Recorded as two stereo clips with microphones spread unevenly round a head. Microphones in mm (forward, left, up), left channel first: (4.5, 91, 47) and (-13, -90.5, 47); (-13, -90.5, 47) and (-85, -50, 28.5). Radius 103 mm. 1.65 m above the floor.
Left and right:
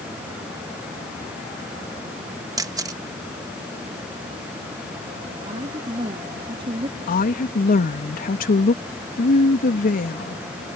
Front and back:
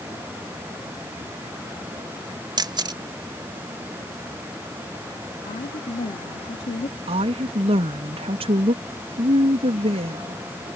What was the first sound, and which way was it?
A camera shutter, 170° right.